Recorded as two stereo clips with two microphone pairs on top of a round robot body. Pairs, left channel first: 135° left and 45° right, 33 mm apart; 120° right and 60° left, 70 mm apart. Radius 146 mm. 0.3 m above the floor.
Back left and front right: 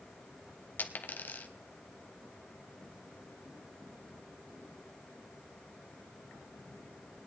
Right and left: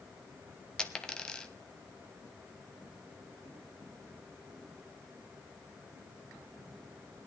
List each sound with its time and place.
0.8 s a dropped coin: 160° left, 0.8 m